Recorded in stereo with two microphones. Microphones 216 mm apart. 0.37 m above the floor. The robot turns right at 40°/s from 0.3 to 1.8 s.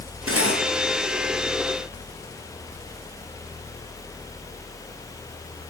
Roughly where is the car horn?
I don't hear a car horn.